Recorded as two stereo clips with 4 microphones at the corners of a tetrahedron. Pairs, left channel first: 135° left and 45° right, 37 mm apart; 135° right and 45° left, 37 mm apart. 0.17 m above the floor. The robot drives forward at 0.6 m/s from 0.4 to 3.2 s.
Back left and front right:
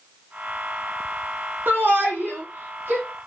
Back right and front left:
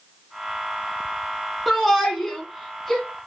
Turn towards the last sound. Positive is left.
turn(degrees=-55)